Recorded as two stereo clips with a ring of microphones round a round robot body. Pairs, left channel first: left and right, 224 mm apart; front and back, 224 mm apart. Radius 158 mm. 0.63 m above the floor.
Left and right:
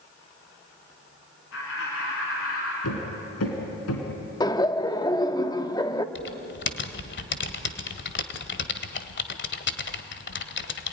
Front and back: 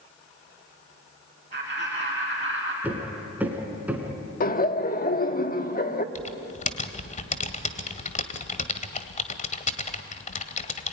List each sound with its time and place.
1.5 s laughter: 125° left, 5.5 m; by 2.7 s 120° left, 5 m
2.8 s hammering: 100° left, 3.5 m
4.4 s laughter: 25° left, 1.4 m
6.2 s typing on a keyboard: 55° left, 1.7 m